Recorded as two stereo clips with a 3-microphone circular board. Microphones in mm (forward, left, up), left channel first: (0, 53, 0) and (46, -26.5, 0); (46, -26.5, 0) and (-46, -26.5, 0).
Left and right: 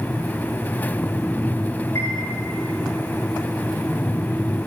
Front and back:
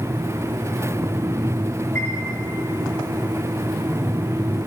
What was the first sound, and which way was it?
A chime, 65° left.